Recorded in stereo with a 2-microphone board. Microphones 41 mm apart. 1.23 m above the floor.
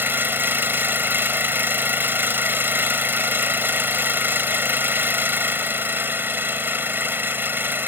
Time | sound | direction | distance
0.0 | an engine running | 60° right (ahead or behind) | ?